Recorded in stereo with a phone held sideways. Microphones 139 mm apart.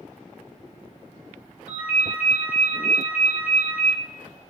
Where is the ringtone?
50° left (ahead or behind), 1.5 m.